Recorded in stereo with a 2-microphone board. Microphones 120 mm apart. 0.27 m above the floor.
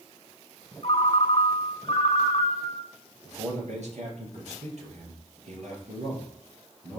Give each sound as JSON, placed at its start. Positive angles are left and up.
{"t": 0.8, "sound": "a ringtone", "side_deg": 55, "distance_m": 1.2}
{"t": 3.2, "sound": "a man speaking", "side_deg": -70, "distance_m": 4.0}